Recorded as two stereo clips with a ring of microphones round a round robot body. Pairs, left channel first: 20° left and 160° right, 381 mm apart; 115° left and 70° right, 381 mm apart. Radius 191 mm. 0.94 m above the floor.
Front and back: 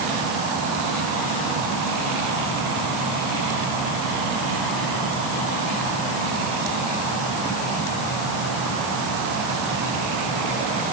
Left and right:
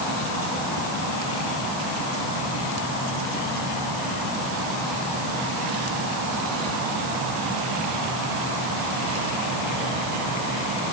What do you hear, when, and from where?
Only background noise.